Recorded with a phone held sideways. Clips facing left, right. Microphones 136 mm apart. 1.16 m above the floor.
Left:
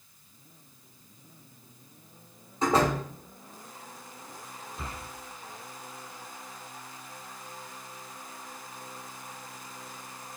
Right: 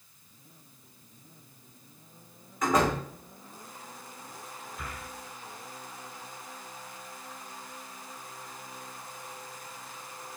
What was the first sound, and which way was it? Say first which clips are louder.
A door slam: left 1 dB; 30° left (ahead or behind).